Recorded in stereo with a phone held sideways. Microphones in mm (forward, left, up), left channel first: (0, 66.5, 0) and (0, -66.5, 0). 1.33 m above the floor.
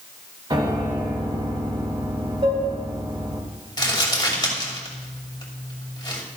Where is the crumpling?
30° left (ahead or behind), 2.5 m.